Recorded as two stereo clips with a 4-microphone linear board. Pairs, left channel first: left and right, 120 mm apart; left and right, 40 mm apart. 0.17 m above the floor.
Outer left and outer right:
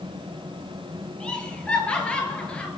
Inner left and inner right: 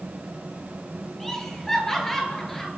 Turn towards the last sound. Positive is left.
turn(degrees=10)  # may be behind; listen again after turning